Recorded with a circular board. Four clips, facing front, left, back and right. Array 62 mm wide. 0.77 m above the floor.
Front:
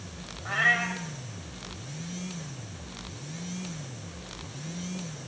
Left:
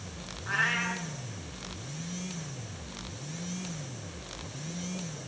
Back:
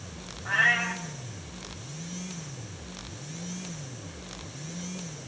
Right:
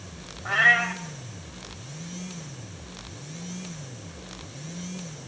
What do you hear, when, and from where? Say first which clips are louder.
0.5 s a cat meowing: right 9 dB, back 1 dB; 80° right, 1.6 m